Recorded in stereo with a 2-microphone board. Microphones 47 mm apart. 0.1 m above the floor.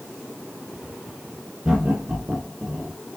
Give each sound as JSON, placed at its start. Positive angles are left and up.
{"t": 1.6, "sound": "laughter", "side_deg": -20, "distance_m": 2.5}